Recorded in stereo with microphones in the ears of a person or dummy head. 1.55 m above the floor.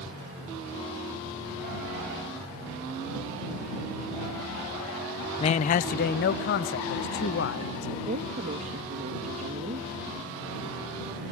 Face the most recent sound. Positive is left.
turn(degrees=-45)  # may be behind; listen again after turning